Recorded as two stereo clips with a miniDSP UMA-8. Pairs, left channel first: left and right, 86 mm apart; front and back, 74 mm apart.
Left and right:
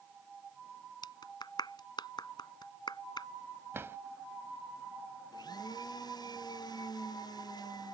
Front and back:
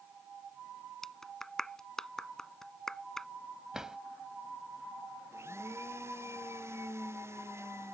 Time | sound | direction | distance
1.0 | a clap | 85° left | ?
3.7 | a drawer | 105° right | ?
5.3 | a blender | 125° left | ?